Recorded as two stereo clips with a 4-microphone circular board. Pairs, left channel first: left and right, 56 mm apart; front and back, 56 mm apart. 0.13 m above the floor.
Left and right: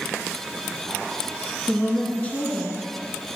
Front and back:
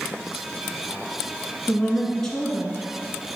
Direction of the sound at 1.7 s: 75° left.